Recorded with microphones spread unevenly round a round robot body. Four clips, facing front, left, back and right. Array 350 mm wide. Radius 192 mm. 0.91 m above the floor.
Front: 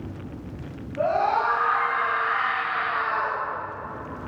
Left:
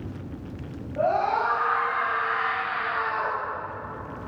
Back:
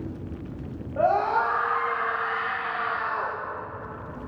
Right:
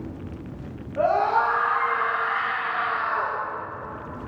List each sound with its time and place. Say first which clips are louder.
1.0 s a scream: right 3 dB, even; straight behind, 6.5 m